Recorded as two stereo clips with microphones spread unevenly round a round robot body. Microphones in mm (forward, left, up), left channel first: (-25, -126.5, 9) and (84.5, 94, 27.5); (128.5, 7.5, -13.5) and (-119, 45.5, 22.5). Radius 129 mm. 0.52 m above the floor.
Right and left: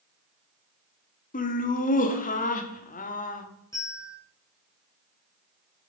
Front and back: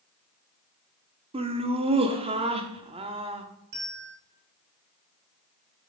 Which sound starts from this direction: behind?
A bell, at 3.7 s.